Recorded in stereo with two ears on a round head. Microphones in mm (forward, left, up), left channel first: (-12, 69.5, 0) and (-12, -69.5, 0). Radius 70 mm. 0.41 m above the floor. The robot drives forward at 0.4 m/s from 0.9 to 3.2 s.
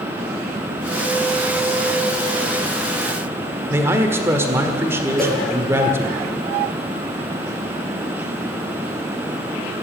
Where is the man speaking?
15° right (ahead or behind), 1.4 m.